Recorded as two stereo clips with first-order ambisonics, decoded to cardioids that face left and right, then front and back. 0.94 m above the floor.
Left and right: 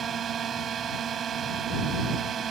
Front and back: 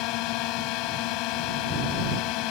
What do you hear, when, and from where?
0.0 s a drone: 25° right